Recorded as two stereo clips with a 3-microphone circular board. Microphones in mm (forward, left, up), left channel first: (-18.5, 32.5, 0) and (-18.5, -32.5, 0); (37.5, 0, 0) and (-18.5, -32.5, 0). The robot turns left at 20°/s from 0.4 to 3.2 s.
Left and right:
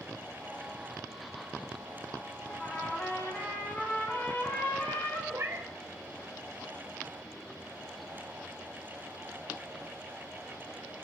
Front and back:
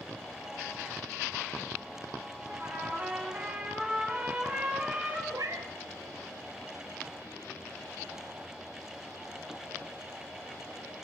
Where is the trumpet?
155° left, 2.5 m; by 5.2 s 140° left, 2.5 m.